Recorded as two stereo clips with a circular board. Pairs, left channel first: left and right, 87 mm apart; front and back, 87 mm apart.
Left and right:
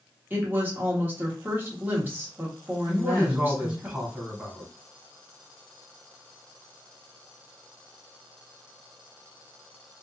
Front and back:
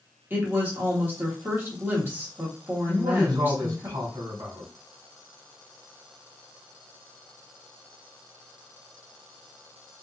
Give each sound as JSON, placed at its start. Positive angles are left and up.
{"t": 0.3, "sound": "a woman speaking", "azimuth_deg": -135, "distance_m": 1.4}
{"t": 2.9, "sound": "a man speaking", "azimuth_deg": -160, "distance_m": 2.0}